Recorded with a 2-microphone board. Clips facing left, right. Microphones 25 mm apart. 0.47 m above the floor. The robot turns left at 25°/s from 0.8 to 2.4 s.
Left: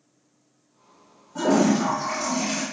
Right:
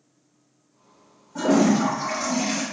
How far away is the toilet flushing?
About 0.9 m.